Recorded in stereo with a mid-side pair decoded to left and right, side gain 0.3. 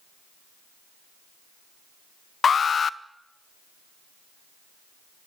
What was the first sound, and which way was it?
An alarm, 60° left.